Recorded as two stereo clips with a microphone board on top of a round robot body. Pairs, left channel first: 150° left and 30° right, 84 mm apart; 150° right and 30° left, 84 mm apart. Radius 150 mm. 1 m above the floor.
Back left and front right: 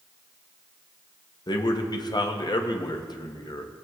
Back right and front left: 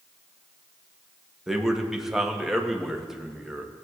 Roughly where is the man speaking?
Behind left.